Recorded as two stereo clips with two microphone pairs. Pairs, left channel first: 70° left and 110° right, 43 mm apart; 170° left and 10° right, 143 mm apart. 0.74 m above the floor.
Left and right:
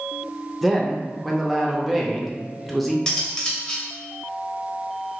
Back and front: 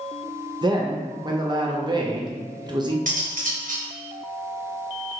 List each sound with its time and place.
0.6 s a man speaking: 10° right, 0.5 m
3.1 s cutlery clinking: 5° left, 0.7 m